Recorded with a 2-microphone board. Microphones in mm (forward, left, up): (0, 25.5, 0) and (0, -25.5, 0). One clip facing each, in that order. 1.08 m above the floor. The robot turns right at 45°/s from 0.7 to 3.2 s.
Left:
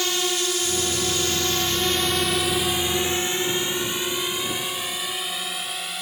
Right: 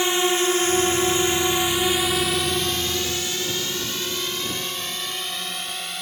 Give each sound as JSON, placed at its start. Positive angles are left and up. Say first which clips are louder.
{"t": 0.0, "sound": "a drone", "louder": "right 5 dB", "side_deg": -25}